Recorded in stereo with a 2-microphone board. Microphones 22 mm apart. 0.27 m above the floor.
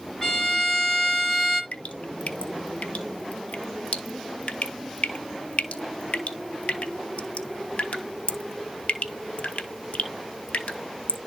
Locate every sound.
0.2 s a violin: 25° left (ahead or behind), 1.6 m
1.7 s dripping: 85° left, 0.9 m